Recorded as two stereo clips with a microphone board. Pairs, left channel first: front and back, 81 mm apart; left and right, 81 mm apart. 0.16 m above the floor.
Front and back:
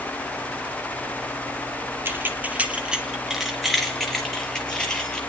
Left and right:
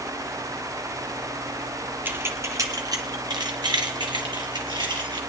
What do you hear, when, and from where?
2.0 s keys jangling: 140° right, 1.2 m; by 5.2 s 80° right, 3 m